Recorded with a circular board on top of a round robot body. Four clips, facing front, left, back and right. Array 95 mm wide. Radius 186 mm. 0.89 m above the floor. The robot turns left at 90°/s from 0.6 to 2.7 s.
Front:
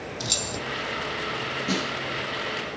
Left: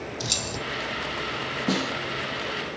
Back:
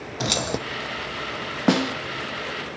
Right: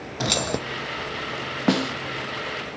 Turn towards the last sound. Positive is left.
turn(degrees=125)